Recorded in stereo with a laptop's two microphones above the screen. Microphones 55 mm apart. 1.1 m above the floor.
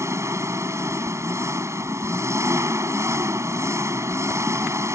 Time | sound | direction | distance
0.0 | an engine running | 70° right (ahead or behind) | ?